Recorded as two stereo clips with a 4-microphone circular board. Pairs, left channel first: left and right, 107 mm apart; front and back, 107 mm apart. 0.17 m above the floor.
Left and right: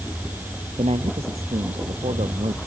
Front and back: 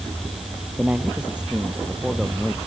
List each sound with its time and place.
0.8 s a man speaking: 105° right; by 2.6 s 95° right